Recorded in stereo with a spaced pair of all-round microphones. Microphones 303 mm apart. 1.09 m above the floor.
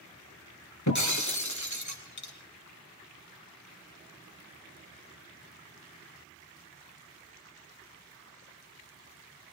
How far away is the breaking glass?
About 3 m.